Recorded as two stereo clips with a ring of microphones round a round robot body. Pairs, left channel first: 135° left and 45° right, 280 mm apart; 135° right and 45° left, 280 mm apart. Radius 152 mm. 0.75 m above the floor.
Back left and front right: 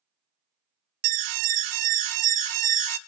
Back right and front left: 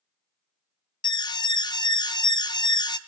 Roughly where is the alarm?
Ahead right.